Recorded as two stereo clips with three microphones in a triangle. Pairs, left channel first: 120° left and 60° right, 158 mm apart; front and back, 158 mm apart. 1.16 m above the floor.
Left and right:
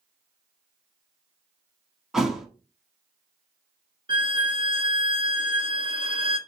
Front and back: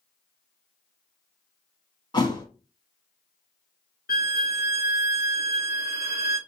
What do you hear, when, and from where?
2.1 s a thud: 25° left, 1.1 m
4.1 s a violin: 5° right, 1.0 m